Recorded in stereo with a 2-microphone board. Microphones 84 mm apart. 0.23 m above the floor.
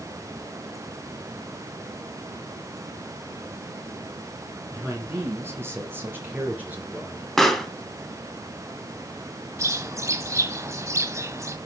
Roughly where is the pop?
Centre.